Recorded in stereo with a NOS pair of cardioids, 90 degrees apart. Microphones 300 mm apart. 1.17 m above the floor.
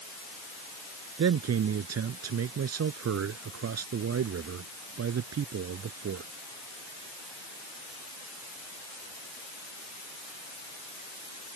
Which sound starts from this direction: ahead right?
A man speaking, at 1.2 s.